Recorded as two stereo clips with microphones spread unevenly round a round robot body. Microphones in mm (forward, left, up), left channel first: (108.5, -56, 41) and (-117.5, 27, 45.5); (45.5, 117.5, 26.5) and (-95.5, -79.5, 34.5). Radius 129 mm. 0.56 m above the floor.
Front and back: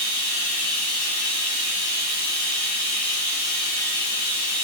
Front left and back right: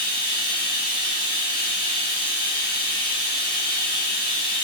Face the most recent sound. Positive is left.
turn(degrees=0)